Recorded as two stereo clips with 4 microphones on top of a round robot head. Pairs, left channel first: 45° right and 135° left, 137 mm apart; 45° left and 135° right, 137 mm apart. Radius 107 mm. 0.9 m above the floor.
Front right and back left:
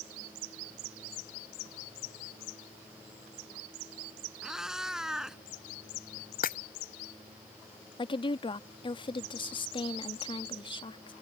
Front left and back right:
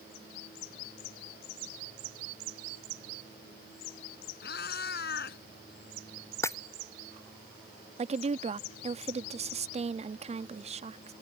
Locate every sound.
4.4 s a cat meowing: 50° left
6.4 s breaking glass: 25° right
8.0 s a woman speaking: 100° right